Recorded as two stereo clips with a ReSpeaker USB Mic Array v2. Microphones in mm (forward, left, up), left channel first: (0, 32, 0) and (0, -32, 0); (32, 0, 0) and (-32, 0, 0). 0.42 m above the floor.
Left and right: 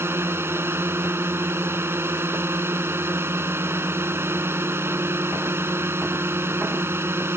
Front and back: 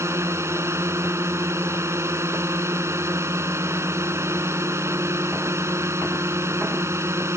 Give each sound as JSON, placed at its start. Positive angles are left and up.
{"t": 0.0, "sound": "a drone", "azimuth_deg": -140}